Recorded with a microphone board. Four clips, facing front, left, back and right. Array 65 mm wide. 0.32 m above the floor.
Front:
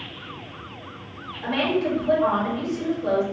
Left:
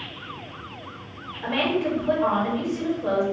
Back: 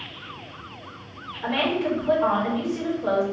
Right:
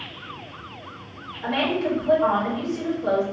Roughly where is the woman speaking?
Behind left.